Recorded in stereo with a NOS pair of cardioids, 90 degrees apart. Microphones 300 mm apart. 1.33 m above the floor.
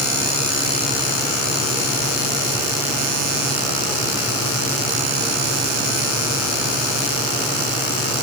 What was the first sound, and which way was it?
Only background noise.